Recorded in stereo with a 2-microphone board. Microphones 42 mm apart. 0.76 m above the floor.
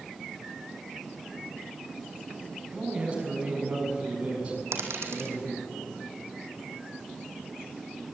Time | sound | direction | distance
2.7 | a man speaking | 30° right (ahead or behind) | 7 m
4.7 | a dropped coin | 80° right | 3.5 m